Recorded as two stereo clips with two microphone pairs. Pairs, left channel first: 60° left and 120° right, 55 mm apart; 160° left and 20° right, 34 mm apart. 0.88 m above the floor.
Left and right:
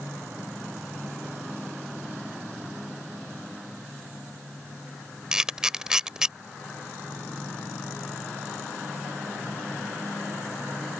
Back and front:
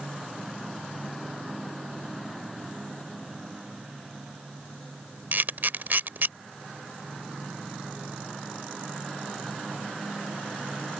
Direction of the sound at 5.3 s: 45° right.